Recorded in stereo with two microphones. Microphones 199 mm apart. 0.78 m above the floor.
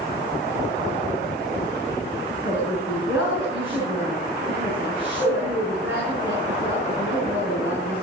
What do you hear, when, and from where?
2.4 s a woman speaking: 10° right (ahead or behind), 7.5 m